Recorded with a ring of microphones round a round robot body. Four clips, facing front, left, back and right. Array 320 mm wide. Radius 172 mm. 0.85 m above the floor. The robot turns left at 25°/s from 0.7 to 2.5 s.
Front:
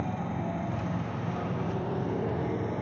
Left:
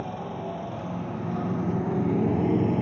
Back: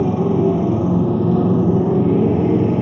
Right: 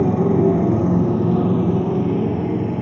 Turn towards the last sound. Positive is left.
turn(degrees=180)